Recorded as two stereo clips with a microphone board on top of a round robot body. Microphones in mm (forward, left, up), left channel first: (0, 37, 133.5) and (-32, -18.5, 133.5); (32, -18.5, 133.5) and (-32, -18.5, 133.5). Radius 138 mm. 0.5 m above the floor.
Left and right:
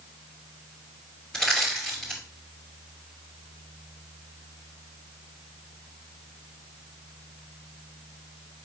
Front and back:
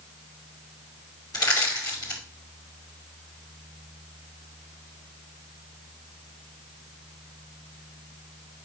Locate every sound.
1.3 s crushing: 20° right, 2.5 m